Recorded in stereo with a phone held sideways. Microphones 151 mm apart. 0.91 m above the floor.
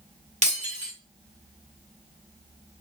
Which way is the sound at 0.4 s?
50° right (ahead or behind).